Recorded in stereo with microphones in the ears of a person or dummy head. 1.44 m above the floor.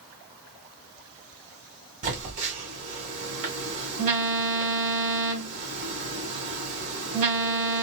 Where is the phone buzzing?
40° right (ahead or behind), 1.8 m.